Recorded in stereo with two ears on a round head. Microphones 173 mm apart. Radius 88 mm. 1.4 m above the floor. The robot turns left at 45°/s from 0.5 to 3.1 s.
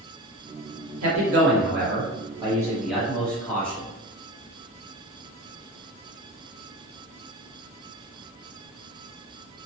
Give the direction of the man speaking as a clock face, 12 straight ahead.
3 o'clock.